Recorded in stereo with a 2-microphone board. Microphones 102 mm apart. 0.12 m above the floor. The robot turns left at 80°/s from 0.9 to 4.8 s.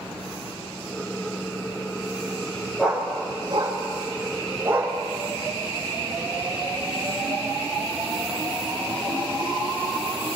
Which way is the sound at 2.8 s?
Centre (ahead or behind).